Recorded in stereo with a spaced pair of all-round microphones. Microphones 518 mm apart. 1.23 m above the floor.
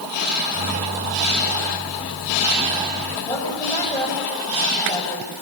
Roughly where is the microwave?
Centre.